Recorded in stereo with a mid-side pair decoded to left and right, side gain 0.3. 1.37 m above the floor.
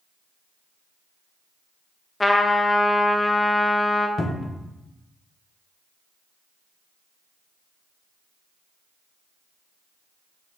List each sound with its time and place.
2.2 s a trumpet: 30° left, 0.5 m
4.2 s a cupboard door: 50° left, 0.6 m